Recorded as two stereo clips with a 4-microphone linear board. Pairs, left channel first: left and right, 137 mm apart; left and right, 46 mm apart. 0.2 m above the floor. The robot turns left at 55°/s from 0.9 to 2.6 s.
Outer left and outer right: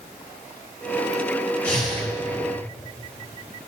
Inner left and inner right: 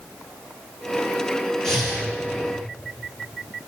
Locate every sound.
1.6 s breathing: 10° left (ahead or behind), 4.5 m; by 2.1 s 10° right (ahead or behind), 4.5 m